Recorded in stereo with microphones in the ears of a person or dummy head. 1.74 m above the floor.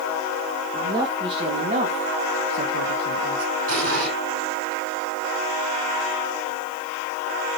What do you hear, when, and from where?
0.7 s a woman speaking: 15° right (ahead or behind), 3 m; by 3.5 s 75° right (ahead or behind), 1.8 m
3.7 s an explosion: 75° right (ahead or behind), 5 m